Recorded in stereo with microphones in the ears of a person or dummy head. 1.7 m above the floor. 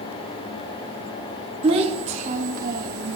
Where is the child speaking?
30° right (ahead or behind), 1.9 m; by 3.2 s 55° right (ahead or behind), 1.6 m.